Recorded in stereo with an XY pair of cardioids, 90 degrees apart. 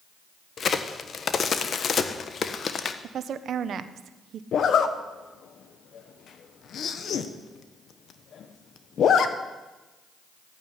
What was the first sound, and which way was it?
A crack, 50° left.